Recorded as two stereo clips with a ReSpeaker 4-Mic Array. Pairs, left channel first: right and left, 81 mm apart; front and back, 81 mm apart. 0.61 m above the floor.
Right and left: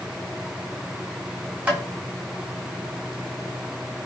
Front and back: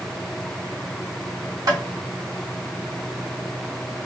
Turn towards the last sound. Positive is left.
turn(degrees=160)